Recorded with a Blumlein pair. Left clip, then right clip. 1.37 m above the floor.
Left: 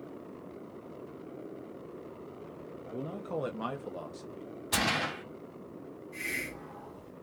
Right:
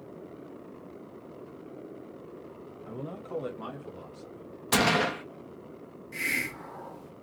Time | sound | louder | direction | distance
2.9 | a man speaking | even | 20° right | 0.8 m
4.7 | a gunshot | right 5 dB | 30° right | 1.4 m
6.1 | a hiss | right 6 dB | 60° right | 1.0 m